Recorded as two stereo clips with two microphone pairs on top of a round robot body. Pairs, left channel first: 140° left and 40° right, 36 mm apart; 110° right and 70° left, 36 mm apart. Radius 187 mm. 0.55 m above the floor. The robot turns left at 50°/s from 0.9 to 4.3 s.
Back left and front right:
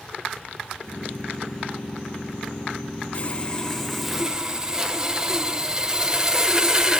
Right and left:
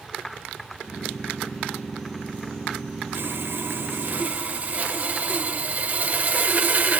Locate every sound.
3.1 s sawing: 90° left, 1.8 m; by 7.0 s 35° left, 1.8 m